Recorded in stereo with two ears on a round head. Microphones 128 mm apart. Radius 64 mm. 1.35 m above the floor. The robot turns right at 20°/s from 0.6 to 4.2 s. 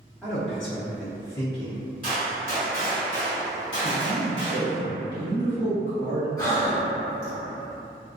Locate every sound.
0.2 s a man speaking: 5° left (ahead or behind), 1.3 m; by 1.8 s 30° left (ahead or behind), 1.3 m
2.0 s a gunshot: 10° left, 1.7 m; by 4.8 s 55° left, 1.7 m
3.8 s a man speaking: 70° left (ahead or behind), 1.1 m; by 6.3 s 75° left (ahead or behind), 1.1 m
6.4 s breathing: 25° left (ahead or behind), 1.0 m